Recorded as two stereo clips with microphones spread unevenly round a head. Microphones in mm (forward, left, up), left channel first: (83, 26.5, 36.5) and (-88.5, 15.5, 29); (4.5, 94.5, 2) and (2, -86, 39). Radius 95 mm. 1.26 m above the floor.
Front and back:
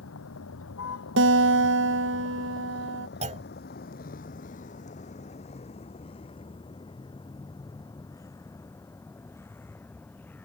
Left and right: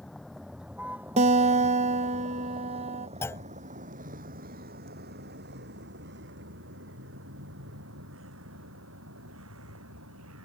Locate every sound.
0.0 s a vehicle: straight ahead; by 10.5 s 80° right
1.2 s a guitar: 145° right
3.2 s a clunk: 175° left